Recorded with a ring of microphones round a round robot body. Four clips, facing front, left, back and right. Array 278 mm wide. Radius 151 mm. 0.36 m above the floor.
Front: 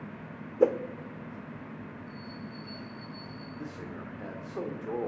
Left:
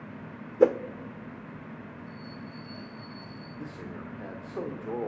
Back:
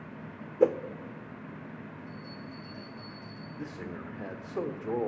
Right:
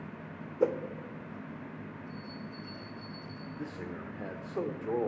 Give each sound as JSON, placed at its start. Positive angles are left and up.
{"t": 0.6, "sound": "a whoosh", "azimuth_deg": 90, "distance_m": 0.6}
{"t": 2.1, "sound": "a bell", "azimuth_deg": -150, "distance_m": 6.0}
{"t": 3.6, "sound": "a man speaking", "azimuth_deg": -150, "distance_m": 1.4}